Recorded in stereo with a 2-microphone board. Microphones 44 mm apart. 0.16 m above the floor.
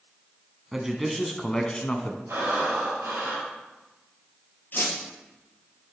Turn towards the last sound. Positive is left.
turn(degrees=45)  # may be behind; listen again after turning